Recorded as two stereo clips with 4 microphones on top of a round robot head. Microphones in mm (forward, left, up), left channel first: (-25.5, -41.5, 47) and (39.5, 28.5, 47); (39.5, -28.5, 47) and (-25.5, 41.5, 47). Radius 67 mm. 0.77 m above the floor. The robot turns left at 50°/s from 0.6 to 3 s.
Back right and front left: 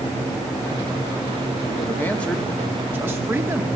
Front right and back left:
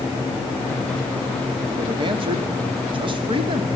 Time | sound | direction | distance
1.7 | a man speaking | straight behind | 2.5 m